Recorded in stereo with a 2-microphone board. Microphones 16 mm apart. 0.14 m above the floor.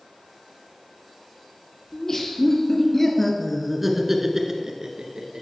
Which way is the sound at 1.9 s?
35° left (ahead or behind).